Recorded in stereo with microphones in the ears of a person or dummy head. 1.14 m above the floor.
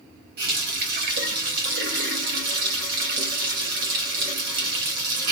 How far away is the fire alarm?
I don't hear a fire alarm.